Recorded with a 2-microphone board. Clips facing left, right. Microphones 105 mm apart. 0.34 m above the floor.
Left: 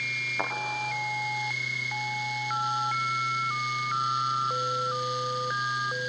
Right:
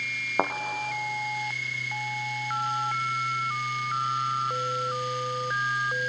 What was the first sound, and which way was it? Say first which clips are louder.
A thud: right 6 dB; 45° right (ahead or behind).